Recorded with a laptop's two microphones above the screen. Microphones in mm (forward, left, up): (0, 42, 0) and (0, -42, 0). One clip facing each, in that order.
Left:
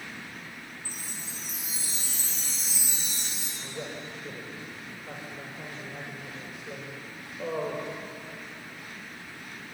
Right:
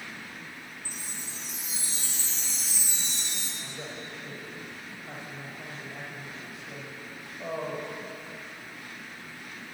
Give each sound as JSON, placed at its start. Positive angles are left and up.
{"t": 0.8, "sound": "a chime", "side_deg": 45, "distance_m": 8.5}
{"t": 3.6, "sound": "a man speaking", "side_deg": 80, "distance_m": 4.5}